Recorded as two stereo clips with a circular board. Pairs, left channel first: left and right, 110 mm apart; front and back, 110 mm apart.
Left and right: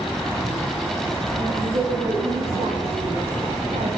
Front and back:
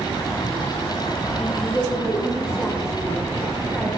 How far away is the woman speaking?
About 7 m.